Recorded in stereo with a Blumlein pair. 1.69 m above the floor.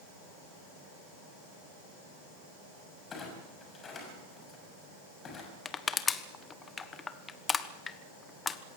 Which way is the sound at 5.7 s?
15° left.